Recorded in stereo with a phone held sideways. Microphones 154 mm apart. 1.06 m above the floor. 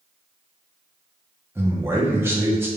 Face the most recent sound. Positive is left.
turn(degrees=-15)  # may be behind; listen again after turning